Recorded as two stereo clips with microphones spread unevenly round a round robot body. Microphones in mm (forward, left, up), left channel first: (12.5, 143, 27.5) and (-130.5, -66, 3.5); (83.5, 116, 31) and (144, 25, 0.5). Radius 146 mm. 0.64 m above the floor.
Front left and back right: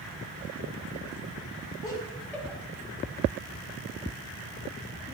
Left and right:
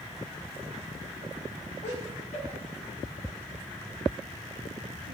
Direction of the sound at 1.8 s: 130° left.